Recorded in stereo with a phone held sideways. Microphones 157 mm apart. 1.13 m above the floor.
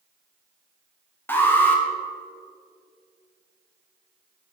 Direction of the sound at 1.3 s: 10° left (ahead or behind).